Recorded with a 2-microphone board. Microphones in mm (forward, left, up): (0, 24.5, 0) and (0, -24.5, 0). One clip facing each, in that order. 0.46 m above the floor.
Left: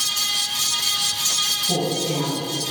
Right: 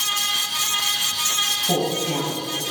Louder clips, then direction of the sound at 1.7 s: Even; 40° right (ahead or behind).